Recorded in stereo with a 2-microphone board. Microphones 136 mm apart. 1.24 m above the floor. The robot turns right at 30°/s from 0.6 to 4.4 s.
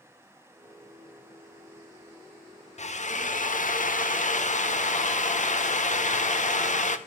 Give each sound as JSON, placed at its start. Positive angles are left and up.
{"t": 2.8, "sound": "a drill", "azimuth_deg": 60, "distance_m": 1.0}